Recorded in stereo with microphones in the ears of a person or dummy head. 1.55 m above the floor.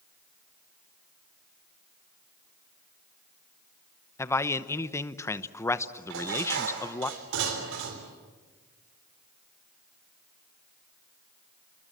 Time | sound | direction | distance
4.2 | a man speaking | 15° left (ahead or behind) | 1.0 m
6.1 | dishes clattering | 70° right (ahead or behind) | 3.5 m